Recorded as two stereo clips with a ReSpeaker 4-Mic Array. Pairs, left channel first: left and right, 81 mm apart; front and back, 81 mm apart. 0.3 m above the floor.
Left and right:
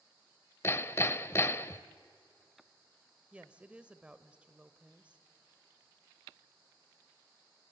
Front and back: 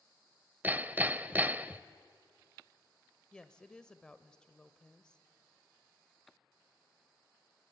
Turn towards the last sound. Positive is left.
turn(degrees=-55)